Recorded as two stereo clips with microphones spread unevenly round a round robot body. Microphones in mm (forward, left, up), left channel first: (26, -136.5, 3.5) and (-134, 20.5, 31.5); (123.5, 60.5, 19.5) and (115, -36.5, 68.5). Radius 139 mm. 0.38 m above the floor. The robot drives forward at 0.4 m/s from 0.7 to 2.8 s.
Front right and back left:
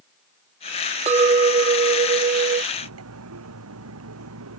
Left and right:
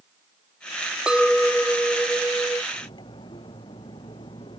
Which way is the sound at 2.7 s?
145° left.